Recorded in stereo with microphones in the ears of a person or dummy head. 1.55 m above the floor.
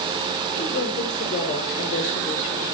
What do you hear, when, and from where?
0.5 s a woman speaking: 45° left (ahead or behind), 5.5 m